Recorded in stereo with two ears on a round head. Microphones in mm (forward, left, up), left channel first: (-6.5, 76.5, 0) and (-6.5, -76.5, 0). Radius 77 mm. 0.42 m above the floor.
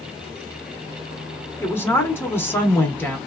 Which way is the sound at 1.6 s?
15° left (ahead or behind).